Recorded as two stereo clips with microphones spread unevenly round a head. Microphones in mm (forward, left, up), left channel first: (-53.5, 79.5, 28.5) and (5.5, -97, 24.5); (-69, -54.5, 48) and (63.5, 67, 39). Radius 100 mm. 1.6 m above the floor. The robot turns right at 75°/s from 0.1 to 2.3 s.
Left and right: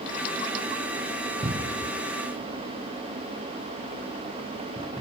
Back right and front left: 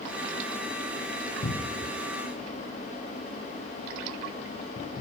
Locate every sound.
1.4 s a cupboard door: 130° right, 1.3 m; by 1.9 s 90° right, 1.3 m